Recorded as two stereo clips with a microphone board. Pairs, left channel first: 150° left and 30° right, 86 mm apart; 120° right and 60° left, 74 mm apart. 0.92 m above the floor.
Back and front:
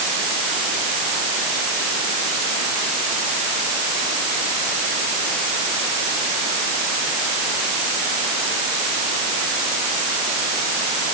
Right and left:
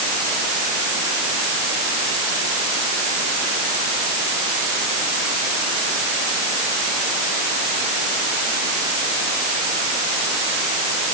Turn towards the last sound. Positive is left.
No sound to turn to.